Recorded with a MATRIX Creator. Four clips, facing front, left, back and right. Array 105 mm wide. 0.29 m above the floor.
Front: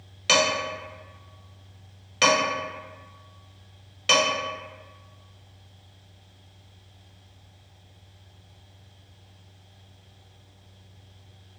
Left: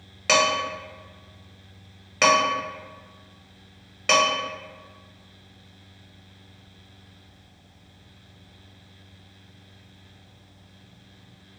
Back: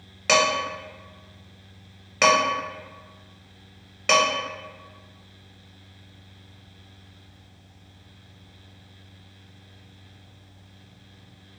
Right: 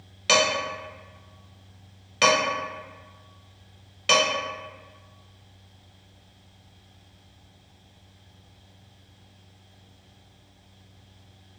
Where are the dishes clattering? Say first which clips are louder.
Left 1 dB, back 2 dB; 140° left, 0.9 m.